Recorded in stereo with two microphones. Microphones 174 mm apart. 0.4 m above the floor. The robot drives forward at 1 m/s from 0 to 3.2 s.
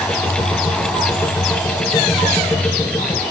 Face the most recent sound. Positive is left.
No sound to turn to.